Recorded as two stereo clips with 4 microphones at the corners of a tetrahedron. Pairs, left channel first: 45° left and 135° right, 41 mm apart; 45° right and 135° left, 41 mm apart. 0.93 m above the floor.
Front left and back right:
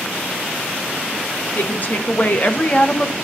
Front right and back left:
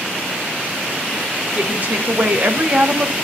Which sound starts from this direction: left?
A woman speaking, at 1.6 s.